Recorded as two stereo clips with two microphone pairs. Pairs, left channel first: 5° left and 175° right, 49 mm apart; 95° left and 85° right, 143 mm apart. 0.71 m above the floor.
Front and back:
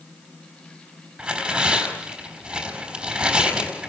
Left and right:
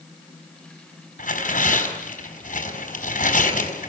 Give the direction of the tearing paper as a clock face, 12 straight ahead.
8 o'clock.